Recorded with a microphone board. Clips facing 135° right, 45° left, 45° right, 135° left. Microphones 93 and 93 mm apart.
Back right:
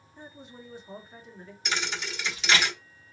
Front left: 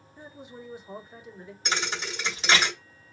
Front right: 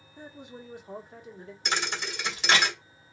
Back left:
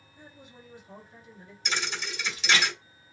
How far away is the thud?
About 1.1 m.